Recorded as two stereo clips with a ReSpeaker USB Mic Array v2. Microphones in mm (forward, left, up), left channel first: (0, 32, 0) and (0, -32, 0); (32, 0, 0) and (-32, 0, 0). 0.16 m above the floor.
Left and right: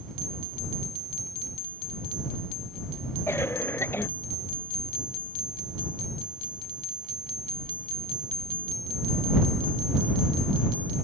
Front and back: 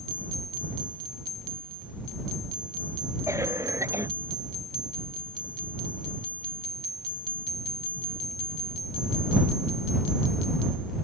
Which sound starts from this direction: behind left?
A cough, at 3.3 s.